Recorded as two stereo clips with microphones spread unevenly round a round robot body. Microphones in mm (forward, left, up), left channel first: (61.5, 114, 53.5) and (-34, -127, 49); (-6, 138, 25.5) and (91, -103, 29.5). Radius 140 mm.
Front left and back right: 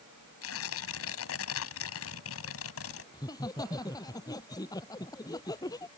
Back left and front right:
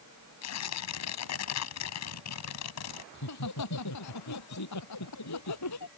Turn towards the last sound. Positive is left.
turn(degrees=145)